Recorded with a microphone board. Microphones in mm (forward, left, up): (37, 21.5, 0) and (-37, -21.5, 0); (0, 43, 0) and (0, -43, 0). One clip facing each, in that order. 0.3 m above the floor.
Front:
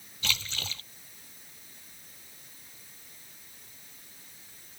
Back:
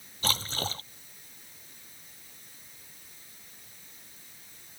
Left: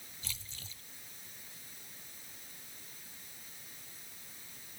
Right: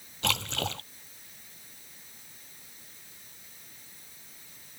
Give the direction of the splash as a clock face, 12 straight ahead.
3 o'clock.